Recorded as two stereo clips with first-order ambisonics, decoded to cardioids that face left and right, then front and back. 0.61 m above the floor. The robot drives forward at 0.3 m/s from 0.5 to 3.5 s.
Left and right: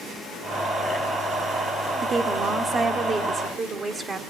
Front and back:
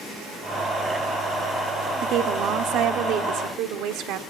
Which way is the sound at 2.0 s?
150° right.